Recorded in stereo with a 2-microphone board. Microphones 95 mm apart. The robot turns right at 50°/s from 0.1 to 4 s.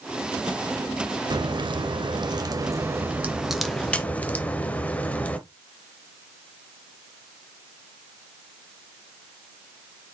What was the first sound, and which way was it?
A crack, 115° right.